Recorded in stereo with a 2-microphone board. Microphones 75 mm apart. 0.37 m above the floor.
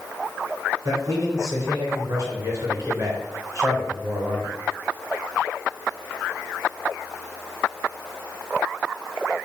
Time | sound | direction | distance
0.8 | a man speaking | 45° right (ahead or behind) | 4 m